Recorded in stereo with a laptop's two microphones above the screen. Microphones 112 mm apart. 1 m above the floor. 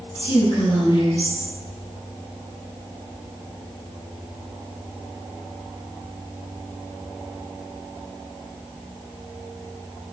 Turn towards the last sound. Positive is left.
turn(degrees=50)  # may be behind; listen again after turning